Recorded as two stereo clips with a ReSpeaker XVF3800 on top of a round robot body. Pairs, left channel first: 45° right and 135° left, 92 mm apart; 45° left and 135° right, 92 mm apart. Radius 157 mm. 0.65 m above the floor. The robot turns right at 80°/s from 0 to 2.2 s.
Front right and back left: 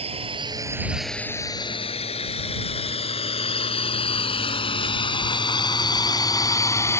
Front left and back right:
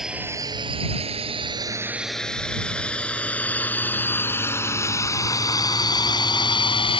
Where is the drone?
140° left; by 7.0 s 20° left.